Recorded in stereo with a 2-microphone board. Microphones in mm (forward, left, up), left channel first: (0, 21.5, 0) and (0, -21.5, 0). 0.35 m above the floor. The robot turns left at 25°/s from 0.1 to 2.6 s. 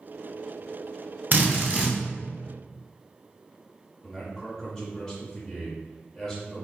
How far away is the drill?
About 1.0 m.